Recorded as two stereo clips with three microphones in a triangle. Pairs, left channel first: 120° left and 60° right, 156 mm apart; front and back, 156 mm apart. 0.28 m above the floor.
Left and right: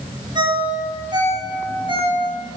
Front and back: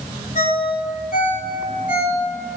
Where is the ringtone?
5° right, 1.5 m.